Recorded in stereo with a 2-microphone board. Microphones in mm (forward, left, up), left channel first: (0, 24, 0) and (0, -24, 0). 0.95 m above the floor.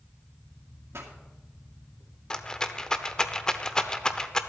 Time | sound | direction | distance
0.9 | a pop | 70° right (ahead or behind) | 2.5 m
2.3 | a rattle | 15° left (ahead or behind) | 0.8 m